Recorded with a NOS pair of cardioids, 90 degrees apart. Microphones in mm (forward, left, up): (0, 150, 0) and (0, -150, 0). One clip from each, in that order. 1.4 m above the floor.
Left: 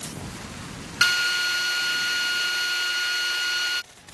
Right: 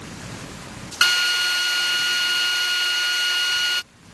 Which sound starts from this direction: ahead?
A drill, at 1.0 s.